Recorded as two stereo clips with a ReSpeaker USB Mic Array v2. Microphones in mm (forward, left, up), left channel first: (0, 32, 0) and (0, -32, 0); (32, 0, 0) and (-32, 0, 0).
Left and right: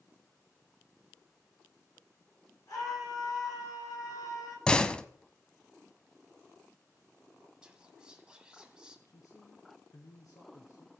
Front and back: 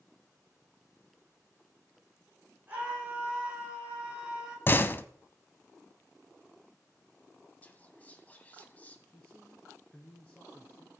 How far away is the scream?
About 9.5 m.